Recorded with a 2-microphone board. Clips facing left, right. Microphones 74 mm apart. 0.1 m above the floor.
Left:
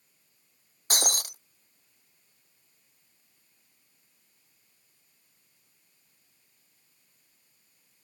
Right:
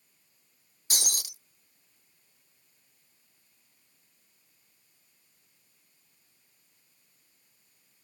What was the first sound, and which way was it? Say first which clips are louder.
Breaking glass: left 7 dB; 45° left (ahead or behind).